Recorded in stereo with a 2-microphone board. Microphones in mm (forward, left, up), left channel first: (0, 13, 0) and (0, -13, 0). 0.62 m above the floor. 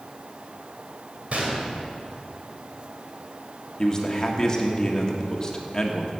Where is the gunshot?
60° right (ahead or behind), 2.5 m.